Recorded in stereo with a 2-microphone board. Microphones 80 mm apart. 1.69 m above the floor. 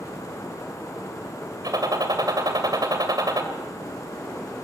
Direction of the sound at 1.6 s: 60° right (ahead or behind).